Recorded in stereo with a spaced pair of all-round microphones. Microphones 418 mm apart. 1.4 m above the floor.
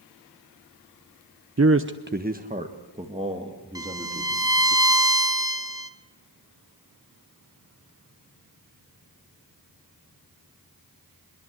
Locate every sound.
1.6 s a man speaking: 35° right (ahead or behind), 0.6 m; by 4.8 s 10° right (ahead or behind), 3 m
3.8 s a violin: 10° right (ahead or behind), 1.4 m